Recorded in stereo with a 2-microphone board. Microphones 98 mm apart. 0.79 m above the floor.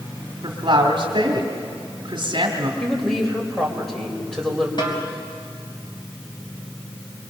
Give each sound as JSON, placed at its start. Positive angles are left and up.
{"t": 0.4, "sound": "a woman speaking", "side_deg": -55, "distance_m": 2.0}
{"t": 2.8, "sound": "a woman speaking", "side_deg": 5, "distance_m": 4.0}
{"t": 4.8, "sound": "a snare drum", "side_deg": 50, "distance_m": 3.5}